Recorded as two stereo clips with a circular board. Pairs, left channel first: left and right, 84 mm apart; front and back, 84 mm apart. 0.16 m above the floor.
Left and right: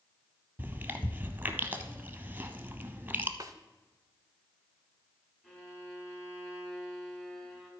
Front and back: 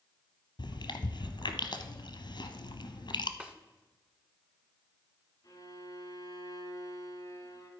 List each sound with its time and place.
0.6 s chewing: 20° right, 0.8 m
3.4 s a snare drum: 110° right, 0.7 m
5.4 s a violin: 15° left, 1.8 m